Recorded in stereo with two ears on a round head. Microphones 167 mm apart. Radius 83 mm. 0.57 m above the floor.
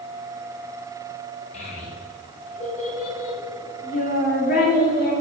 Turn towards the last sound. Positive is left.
turn(degrees=55)  # may be behind; listen again after turning